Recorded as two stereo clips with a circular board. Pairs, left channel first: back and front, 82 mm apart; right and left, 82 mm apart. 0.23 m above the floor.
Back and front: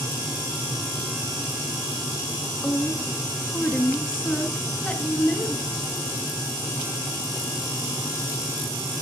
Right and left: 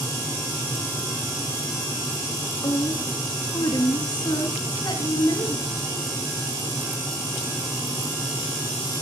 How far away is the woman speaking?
About 2.5 m.